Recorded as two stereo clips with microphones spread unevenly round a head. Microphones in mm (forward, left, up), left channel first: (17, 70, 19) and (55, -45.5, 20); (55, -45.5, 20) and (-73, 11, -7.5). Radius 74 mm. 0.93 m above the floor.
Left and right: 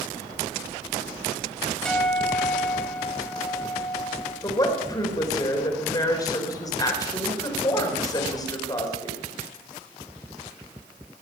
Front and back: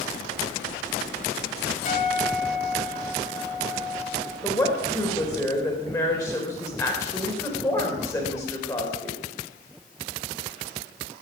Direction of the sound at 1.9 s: 25° left.